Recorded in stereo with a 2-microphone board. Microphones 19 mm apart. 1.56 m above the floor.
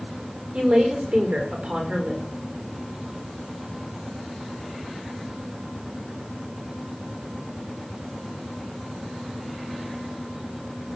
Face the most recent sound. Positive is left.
turn(degrees=-75)  # may be behind; listen again after turning